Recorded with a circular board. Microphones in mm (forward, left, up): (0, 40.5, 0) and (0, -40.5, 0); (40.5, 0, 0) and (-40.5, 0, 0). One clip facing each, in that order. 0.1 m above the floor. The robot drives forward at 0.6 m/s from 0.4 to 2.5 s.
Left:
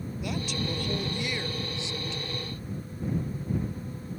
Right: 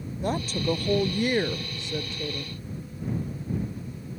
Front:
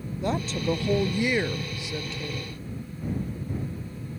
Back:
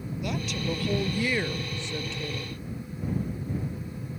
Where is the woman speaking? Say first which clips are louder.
Right 6 dB, front 5 dB; 50° right; by 2.5 s 95° right.